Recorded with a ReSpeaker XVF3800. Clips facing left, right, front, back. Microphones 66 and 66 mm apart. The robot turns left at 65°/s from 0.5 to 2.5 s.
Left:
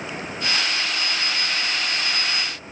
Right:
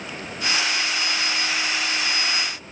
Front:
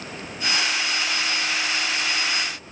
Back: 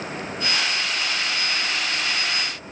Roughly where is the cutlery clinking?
No cutlery clinking in this recording.